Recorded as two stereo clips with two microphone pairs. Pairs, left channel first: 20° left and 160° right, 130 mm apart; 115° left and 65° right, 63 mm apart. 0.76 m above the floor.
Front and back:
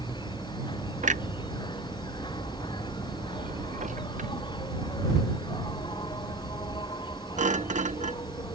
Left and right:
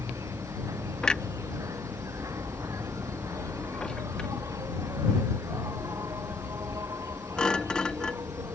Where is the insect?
30° right.